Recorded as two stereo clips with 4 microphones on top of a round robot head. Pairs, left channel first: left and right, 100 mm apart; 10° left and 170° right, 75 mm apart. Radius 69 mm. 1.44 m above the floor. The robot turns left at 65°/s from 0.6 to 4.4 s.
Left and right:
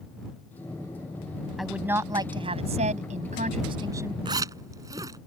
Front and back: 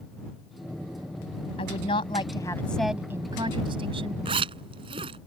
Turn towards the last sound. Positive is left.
turn(degrees=-155)